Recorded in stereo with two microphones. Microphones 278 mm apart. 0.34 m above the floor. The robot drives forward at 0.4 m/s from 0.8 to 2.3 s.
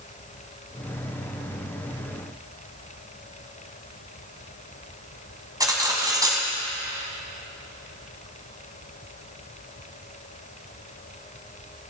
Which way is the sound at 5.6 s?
15° right (ahead or behind).